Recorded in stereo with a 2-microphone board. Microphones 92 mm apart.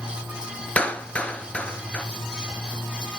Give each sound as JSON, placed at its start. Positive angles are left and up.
{"t": 0.8, "sound": "a clap", "side_deg": 10, "distance_m": 1.2}